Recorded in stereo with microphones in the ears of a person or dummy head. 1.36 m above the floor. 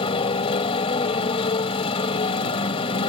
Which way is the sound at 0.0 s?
35° left (ahead or behind).